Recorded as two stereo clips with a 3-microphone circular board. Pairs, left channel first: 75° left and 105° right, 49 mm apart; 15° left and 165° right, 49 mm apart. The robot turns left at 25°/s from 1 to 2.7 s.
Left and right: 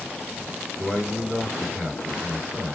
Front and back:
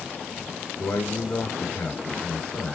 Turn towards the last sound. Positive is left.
turn(degrees=-60)